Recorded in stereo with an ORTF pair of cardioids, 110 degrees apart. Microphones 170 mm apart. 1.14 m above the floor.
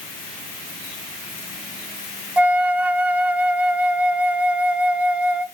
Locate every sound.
2.4 s a flute: 10° right, 0.5 m